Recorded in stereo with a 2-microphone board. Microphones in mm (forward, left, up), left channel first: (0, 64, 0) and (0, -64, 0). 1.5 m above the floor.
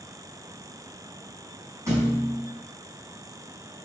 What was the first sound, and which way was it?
A thud, 25° right (ahead or behind).